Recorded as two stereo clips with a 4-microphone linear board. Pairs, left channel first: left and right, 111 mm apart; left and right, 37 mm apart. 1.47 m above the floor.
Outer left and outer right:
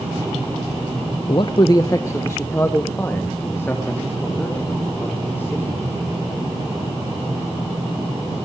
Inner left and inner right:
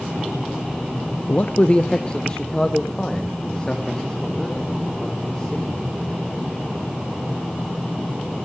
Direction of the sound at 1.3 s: 45° left (ahead or behind).